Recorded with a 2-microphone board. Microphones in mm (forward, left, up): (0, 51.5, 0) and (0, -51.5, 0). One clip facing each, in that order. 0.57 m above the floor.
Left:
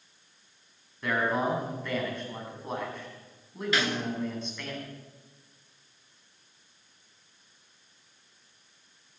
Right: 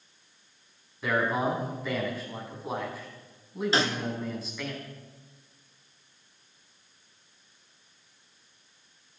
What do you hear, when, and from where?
1.0 s a man speaking: 5° right (ahead or behind), 5.5 m
3.7 s a snare drum: 30° right (ahead or behind), 1.6 m